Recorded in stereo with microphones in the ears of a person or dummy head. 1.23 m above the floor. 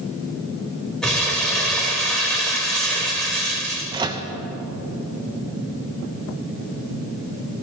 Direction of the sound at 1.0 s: Centre (ahead or behind).